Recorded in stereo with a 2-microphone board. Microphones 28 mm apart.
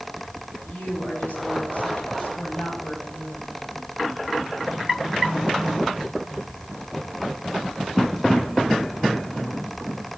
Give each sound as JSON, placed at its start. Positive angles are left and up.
{"t": 0.7, "sound": "a woman speaking", "side_deg": 85, "distance_m": 6.0}